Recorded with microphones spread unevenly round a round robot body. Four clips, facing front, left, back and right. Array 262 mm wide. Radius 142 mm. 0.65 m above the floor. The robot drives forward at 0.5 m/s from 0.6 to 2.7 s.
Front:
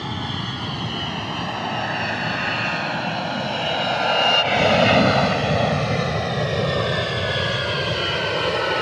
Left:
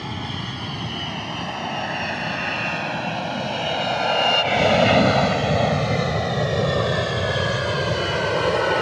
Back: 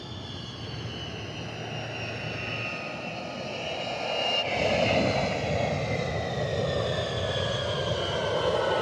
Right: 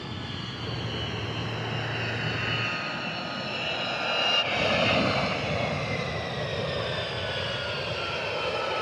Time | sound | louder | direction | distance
0.0 | an aircraft | left 7 dB, front 12 dB | 25° left | ?